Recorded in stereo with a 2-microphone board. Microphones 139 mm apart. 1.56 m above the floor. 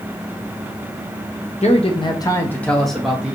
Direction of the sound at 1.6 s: 55° left (ahead or behind).